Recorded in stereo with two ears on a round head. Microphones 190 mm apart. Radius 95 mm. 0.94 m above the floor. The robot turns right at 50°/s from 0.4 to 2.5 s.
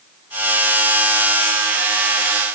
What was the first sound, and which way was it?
Only background noise.